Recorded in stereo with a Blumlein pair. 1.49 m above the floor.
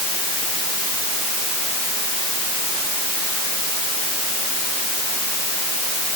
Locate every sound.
Only background noise.